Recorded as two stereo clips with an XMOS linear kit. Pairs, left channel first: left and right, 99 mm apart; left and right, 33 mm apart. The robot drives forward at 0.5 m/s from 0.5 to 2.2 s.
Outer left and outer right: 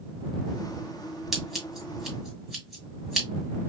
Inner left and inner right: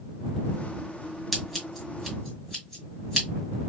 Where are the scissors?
Centre (ahead or behind), 1.6 m.